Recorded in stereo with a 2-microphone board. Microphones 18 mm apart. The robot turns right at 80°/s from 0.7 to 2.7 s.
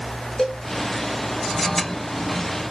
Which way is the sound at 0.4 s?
20° left (ahead or behind).